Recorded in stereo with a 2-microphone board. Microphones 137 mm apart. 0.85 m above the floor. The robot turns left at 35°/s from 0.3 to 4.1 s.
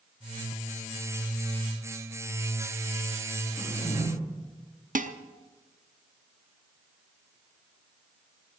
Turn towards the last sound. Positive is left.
turn(degrees=-70)  # may be behind; listen again after turning